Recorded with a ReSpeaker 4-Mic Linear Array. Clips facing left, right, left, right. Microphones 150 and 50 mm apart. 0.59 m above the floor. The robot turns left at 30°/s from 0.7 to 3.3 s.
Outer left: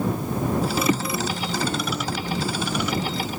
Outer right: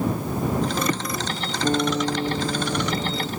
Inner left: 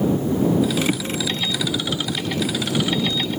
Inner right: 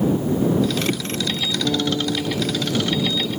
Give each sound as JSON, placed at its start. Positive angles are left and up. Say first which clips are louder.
{"t": 1.6, "sound": "a guitar", "louder": "outer right 5 dB, inner right 3 dB", "azimuth_deg": -40}